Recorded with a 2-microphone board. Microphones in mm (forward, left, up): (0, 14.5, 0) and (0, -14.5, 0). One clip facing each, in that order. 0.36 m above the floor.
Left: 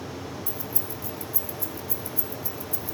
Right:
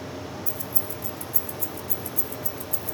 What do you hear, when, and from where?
0.5 s keys jangling: 30° left (ahead or behind), 0.7 m